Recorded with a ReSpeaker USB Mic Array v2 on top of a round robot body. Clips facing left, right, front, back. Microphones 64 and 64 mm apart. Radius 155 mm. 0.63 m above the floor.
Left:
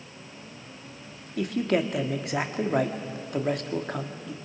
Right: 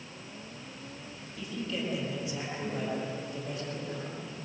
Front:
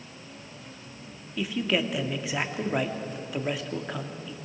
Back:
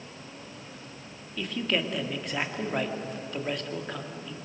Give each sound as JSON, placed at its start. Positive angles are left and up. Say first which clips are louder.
{"t": 1.4, "sound": "a man speaking", "louder": "left 11 dB, front 2 dB", "azimuth_deg": 85, "distance_m": 2.0}